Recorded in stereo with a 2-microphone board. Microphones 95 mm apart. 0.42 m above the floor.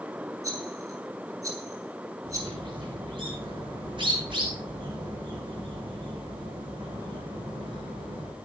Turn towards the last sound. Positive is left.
turn(degrees=-60)  # may be behind; listen again after turning